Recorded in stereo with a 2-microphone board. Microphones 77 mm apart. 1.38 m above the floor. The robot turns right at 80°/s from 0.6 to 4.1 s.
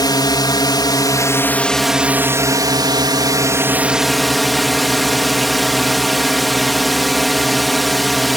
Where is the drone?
80° left; by 8.4 s straight ahead.